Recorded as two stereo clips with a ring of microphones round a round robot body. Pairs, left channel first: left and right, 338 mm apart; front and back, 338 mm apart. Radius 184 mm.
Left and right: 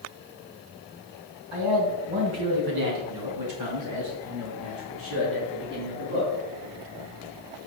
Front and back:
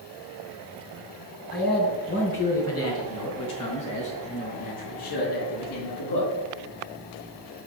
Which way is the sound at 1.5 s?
70° right.